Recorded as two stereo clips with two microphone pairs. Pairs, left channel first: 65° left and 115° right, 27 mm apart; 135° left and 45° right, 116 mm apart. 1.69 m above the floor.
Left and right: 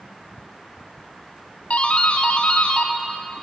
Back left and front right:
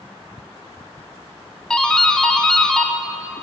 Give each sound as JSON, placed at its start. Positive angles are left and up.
{"t": 1.7, "sound": "a doorbell", "azimuth_deg": 55, "distance_m": 0.7}